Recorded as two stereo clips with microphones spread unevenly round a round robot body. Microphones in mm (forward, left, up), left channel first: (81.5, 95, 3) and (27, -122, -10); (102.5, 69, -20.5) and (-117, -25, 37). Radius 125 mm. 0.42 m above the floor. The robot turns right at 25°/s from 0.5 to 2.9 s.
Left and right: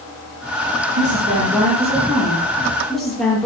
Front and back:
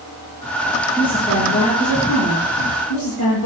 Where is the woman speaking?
55° right, 8 m; by 3.5 s 10° right, 8 m.